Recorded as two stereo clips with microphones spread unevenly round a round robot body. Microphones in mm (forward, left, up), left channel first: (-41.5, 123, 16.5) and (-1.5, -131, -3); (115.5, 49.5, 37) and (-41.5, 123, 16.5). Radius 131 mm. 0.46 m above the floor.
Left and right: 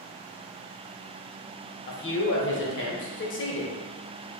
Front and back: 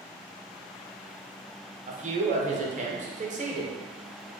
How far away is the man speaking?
About 1.1 m.